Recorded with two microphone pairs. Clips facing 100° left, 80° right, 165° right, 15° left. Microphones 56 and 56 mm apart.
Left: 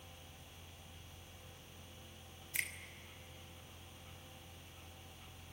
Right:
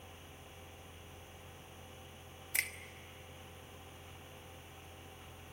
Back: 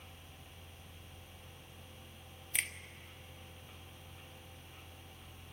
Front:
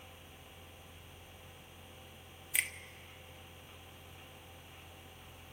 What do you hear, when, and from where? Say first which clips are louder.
2.5 s a finger snap: right 4 dB, front 2 dB; 70° right, 0.9 m